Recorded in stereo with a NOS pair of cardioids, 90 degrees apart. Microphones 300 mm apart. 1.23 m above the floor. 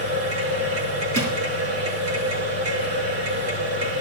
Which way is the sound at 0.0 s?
65° right.